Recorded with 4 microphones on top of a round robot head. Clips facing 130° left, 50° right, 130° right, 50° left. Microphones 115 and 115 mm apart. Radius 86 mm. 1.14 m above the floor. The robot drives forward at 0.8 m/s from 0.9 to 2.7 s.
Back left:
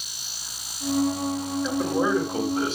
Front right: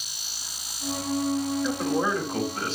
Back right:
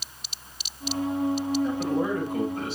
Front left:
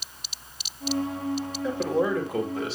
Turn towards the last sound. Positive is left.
turn(degrees=55)